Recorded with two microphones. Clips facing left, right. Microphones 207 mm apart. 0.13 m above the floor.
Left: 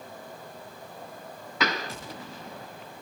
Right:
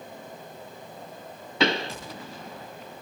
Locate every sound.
1.6 s a pop: 30° right (ahead or behind), 0.7 m